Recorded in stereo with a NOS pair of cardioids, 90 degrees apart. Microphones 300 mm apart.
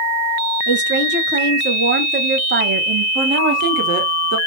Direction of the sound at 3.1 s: 65° right.